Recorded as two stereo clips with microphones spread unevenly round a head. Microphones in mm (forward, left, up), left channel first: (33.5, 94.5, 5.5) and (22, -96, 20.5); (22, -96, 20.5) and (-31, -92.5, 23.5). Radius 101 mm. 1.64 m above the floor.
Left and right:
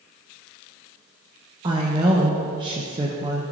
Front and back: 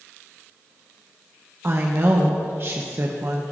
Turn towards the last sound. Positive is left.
turn(degrees=-155)